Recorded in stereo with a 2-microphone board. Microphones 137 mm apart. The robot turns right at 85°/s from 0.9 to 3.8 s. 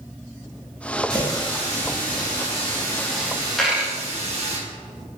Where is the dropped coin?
5° left (ahead or behind), 0.5 m; by 4.0 s 10° right (ahead or behind), 0.5 m.